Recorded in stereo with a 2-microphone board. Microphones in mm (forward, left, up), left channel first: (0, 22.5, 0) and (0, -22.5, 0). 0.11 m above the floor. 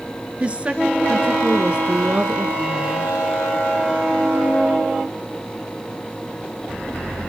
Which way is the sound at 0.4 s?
25° right (ahead or behind).